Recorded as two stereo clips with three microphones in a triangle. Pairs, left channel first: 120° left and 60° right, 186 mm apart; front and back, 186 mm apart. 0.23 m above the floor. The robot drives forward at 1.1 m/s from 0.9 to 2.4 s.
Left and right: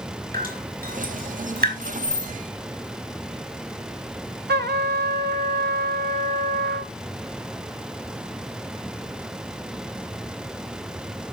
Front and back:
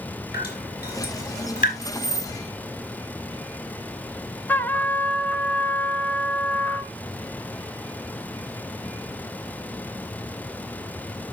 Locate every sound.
0.3 s dripping: 25° right, 3.5 m; by 1.7 s 35° right, 2.5 m
1.8 s keys jangling: 155° left, 2.5 m; by 2.3 s 160° left, 3 m
4.5 s a trumpet: 80° right, 0.7 m